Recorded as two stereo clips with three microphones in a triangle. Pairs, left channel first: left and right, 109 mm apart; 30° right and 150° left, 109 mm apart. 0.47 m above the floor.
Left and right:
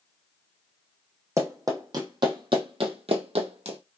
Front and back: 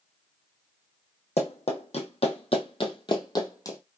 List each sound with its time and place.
1.4 s running footsteps: 30° right, 1.5 m; by 3.8 s 90° right, 1.2 m